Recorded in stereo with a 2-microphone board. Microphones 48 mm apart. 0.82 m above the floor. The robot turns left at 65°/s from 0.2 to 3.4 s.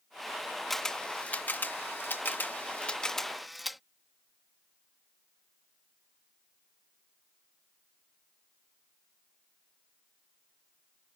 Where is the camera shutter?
5° left (ahead or behind); by 3.8 s centre (ahead or behind).